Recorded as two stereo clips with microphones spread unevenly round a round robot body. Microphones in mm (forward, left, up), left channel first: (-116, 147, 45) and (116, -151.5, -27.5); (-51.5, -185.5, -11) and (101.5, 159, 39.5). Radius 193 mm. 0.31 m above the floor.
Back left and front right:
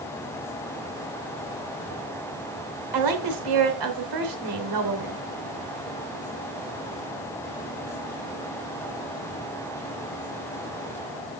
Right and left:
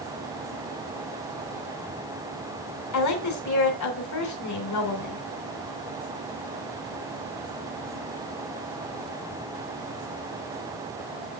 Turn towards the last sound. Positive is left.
turn(degrees=-75)